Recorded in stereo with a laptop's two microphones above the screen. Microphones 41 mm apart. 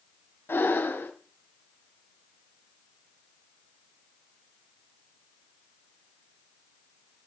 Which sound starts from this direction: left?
Breathing, at 0.5 s.